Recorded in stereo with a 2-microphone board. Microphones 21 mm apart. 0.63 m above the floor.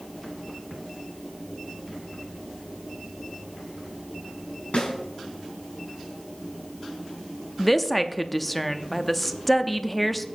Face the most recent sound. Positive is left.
turn(degrees=0)  # may be behind; listen again after turning